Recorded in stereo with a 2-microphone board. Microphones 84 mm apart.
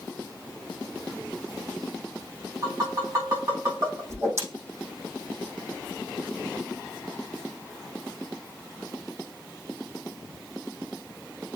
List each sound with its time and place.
2.6 s tapping: 50° right (ahead or behind), 5 m
4.1 s a whoosh: 35° right (ahead or behind), 5 m